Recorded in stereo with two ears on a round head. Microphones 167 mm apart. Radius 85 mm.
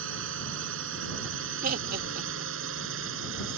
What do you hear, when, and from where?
0.0 s a drone: 75° right (ahead or behind)
1.6 s laughter: 50° right (ahead or behind)